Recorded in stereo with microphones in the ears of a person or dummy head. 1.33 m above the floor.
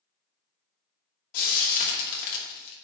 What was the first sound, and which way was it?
Frying, 55° left (ahead or behind).